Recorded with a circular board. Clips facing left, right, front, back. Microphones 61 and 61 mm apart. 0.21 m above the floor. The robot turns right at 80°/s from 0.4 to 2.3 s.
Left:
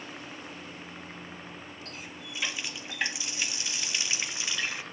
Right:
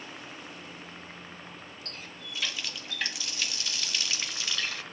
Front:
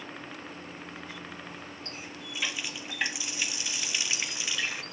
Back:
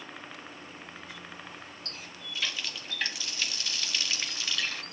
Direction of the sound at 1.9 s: 10° left.